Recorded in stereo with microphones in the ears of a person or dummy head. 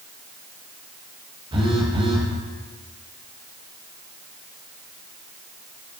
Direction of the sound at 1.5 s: 20° right (ahead or behind).